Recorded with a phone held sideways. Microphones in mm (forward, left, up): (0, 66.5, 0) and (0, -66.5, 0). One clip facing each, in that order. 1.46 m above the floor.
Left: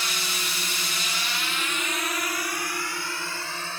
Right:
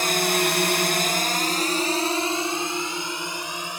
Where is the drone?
55° right (ahead or behind); by 3.8 s 15° right (ahead or behind).